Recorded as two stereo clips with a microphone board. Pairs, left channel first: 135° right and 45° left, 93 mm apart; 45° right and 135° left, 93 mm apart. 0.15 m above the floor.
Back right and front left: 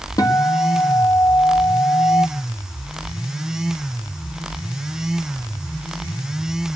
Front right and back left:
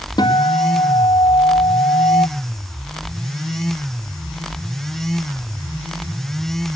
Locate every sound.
0.2 s a guitar: 85° right, 1.9 m